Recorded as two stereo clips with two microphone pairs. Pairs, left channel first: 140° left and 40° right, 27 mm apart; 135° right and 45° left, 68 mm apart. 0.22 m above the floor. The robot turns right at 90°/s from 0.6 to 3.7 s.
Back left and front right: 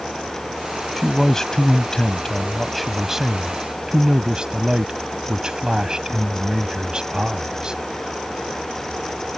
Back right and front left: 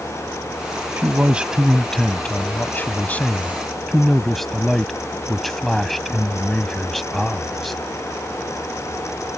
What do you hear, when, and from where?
1.0 s a man speaking: 60° left; by 7.8 s 50° right